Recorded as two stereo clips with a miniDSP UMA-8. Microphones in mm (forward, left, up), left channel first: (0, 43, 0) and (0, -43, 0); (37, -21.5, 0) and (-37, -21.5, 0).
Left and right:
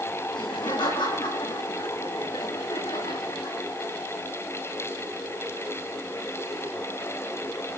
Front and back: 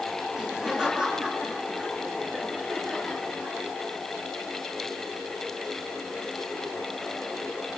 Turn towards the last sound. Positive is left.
turn(degrees=100)